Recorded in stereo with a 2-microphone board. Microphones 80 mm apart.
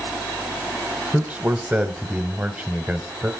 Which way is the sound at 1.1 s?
15° right (ahead or behind).